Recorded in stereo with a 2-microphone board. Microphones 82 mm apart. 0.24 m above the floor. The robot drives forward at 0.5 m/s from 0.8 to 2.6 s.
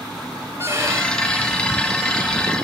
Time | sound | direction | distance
0.6 | a violin | 35° right (ahead or behind) | 1.0 m